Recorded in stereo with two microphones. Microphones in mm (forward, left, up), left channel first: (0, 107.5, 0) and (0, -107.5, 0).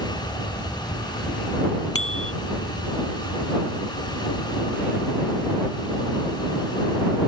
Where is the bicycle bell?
85° left.